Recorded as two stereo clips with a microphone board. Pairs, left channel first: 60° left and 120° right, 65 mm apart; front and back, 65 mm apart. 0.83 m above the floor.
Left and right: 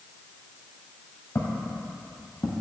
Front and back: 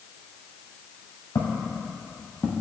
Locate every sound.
1.4 s footsteps: 15° left, 1.7 m; by 2.5 s 75° left, 1.5 m